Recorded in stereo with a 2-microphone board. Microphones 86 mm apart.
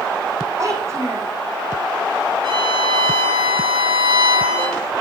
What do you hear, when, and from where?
0.6 s a child speaking: 35° right (ahead or behind), 6.5 m
2.4 s a violin: 65° right (ahead or behind), 6 m